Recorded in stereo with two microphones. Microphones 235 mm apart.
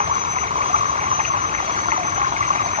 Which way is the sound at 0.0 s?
30° right (ahead or behind).